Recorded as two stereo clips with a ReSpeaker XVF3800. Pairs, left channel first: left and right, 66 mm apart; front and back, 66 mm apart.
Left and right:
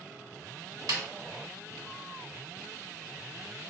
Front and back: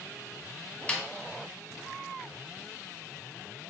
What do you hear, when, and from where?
0.9 s a snare drum: 70° right, 0.7 m